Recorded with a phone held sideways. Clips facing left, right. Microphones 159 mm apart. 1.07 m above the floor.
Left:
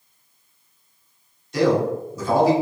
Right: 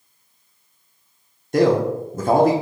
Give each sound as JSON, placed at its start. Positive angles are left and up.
{"t": 1.5, "sound": "a man speaking", "side_deg": -50, "distance_m": 0.7}